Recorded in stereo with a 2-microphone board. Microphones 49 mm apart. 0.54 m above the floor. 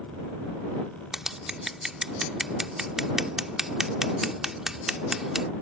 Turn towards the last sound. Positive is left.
turn(degrees=-10)  # may be behind; listen again after turning